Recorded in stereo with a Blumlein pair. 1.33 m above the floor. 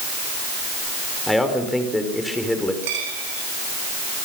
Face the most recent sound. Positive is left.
turn(degrees=-50)